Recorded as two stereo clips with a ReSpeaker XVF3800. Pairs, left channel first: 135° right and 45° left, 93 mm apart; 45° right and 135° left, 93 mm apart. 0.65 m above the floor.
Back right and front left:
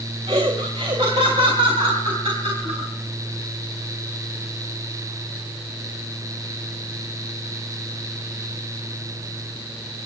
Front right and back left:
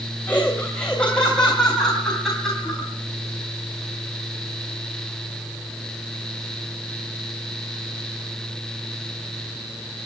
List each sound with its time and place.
0.3 s laughter: 30° left, 3 m; by 2.9 s 45° left, 4.5 m